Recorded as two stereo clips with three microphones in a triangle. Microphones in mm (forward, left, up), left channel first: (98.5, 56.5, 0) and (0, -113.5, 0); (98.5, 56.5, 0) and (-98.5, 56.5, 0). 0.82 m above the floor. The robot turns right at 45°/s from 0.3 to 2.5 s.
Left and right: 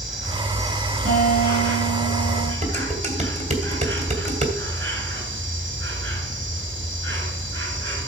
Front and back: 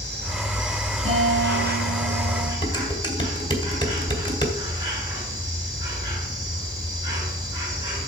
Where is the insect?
155° left, 5 m; by 8.1 s 105° right, 5 m.